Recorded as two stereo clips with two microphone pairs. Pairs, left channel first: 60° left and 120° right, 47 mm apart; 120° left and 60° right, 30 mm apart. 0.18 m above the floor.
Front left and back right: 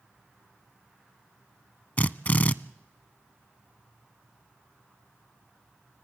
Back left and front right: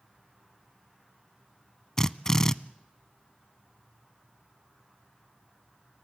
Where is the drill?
65° left, 0.6 m.